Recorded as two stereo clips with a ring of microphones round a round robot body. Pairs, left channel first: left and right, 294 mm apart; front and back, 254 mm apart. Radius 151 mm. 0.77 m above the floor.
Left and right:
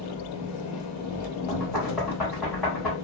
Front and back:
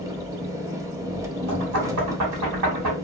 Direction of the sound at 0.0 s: 105° left.